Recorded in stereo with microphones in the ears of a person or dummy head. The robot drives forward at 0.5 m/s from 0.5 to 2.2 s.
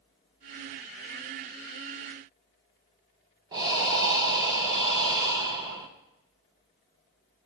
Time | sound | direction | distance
3.5 | breathing | 30° right (ahead or behind) | 0.6 m